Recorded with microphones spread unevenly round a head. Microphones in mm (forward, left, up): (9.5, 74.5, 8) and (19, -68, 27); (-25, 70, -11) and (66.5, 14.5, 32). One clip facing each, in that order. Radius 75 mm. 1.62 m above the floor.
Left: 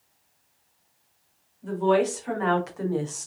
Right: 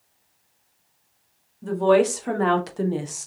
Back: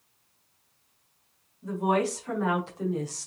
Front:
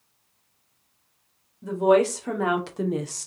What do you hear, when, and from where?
1.6 s a woman speaking: 60° right, 2 m; by 3.3 s 5° left, 0.9 m